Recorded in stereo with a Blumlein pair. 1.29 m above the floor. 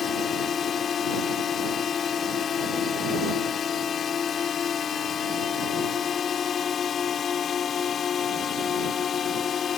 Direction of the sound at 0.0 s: 25° left.